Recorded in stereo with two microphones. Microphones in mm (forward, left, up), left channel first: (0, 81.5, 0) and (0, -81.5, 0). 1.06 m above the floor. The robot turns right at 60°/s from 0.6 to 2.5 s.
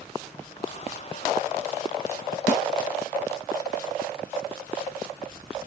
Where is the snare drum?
50° left (ahead or behind).